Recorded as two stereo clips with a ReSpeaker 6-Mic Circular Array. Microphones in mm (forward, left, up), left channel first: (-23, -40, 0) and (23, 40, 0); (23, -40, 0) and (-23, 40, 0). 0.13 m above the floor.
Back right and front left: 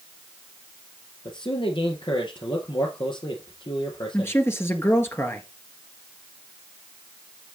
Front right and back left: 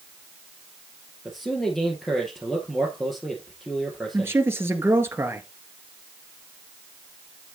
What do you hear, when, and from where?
1.2 s a man speaking: 150° right, 2.5 m
4.1 s a man speaking: straight behind, 1.8 m